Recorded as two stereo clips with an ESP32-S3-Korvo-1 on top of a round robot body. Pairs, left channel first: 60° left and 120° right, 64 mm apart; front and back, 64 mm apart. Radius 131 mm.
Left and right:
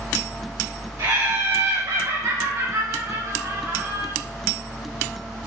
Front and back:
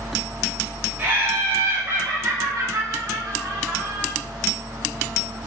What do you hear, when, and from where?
1.0 s laughter: 120° right, 4.5 m; by 4.1 s 145° right, 7 m